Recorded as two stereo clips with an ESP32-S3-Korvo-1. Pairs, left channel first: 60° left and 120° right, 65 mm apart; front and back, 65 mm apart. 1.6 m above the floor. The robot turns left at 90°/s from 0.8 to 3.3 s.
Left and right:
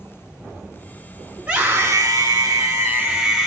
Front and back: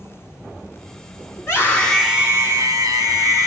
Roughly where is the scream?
Ahead right.